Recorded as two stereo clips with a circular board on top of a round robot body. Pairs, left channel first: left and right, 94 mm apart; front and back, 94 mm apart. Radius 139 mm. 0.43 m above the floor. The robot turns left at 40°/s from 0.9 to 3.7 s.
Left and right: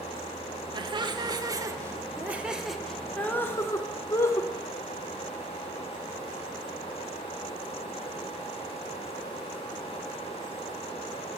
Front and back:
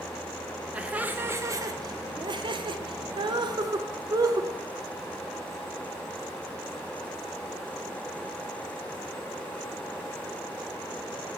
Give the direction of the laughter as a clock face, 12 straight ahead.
4 o'clock.